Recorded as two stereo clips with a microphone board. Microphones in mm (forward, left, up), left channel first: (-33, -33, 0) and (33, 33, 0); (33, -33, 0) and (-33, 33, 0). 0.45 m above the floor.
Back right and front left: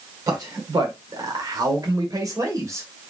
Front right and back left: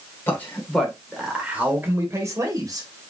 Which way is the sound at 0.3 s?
15° left.